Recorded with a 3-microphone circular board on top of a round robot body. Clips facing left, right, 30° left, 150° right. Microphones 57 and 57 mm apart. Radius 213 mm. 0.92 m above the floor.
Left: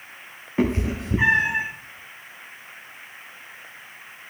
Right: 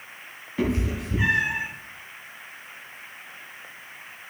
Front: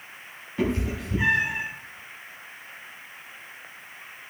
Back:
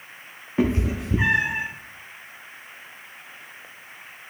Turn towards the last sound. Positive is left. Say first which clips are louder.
# left 3 dB, back 4 dB
turn(degrees=150)